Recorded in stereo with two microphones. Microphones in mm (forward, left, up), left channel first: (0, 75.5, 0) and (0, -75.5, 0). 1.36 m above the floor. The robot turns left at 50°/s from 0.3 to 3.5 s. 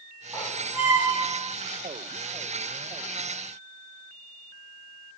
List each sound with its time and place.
0.3 s a squeak: 10° right (ahead or behind), 1.3 m; by 1.5 s 20° right (ahead or behind), 1.3 m